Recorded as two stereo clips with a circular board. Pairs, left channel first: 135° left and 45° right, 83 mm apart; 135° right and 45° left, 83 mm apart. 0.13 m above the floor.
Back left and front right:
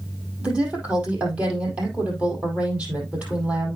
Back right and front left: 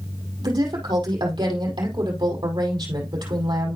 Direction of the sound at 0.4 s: 30° left.